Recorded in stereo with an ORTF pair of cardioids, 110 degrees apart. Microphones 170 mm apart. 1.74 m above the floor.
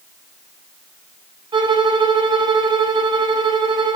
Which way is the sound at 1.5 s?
30° right.